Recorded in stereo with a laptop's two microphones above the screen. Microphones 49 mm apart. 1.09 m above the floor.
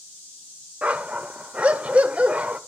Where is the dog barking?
30° right (ahead or behind), 1.7 m.